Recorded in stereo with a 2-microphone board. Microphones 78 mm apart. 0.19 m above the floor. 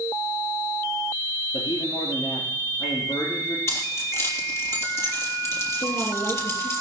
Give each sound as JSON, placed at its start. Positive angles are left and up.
{"t": 1.5, "sound": "a man speaking", "side_deg": 70, "distance_m": 3.5}
{"t": 3.7, "sound": "keys jangling", "side_deg": 35, "distance_m": 3.5}
{"t": 5.8, "sound": "a woman speaking", "side_deg": 50, "distance_m": 3.0}